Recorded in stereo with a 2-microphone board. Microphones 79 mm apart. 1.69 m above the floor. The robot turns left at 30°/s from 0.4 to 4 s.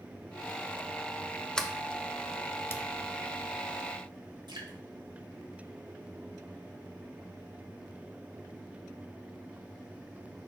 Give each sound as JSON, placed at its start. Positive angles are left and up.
{"t": 1.6, "sound": "a sliding door", "side_deg": 10, "distance_m": 0.7}
{"t": 4.5, "sound": "dripping", "side_deg": -70, "distance_m": 1.7}